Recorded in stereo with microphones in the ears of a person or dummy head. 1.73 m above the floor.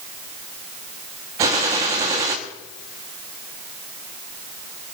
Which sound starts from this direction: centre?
A gunshot, at 1.4 s.